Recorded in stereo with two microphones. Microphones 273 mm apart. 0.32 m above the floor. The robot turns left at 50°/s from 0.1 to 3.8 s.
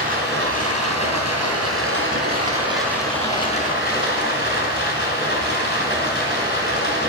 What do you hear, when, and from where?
0.0 s running water: 35° right, 4 m; by 7.1 s 140° left, 4 m